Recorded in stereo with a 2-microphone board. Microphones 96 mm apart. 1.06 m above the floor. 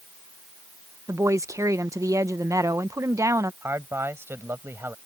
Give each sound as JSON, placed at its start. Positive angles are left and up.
{"t": 1.1, "sound": "a woman speaking", "side_deg": -35}
{"t": 3.6, "sound": "a man speaking", "side_deg": -25}